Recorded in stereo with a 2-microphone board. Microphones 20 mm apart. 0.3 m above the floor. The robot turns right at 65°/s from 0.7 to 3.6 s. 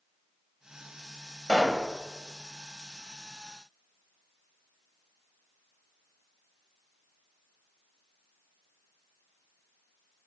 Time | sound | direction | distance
1.5 | a pop | 30° left (ahead or behind) | 1.1 m